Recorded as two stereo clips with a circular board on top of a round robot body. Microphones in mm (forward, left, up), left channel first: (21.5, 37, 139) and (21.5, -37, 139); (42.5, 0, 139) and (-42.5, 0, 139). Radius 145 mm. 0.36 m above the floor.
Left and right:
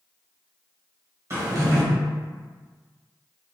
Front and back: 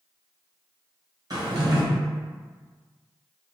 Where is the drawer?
140° right, 1.1 m.